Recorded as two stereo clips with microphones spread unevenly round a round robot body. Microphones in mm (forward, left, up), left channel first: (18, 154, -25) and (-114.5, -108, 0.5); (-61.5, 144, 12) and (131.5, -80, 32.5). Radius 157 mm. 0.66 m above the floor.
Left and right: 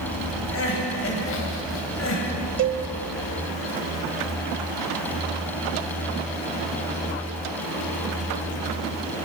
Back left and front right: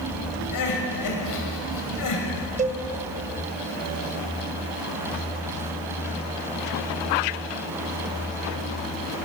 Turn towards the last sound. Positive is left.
turn(degrees=-105)